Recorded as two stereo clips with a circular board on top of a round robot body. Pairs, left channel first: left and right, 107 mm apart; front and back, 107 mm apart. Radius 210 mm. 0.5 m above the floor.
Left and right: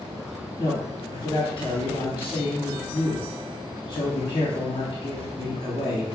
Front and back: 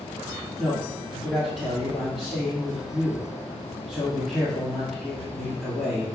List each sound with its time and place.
0.6 s a man speaking: 75° left, 1.8 m